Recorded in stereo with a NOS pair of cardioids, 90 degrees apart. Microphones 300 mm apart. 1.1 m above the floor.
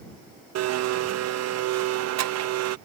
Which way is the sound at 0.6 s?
60° right.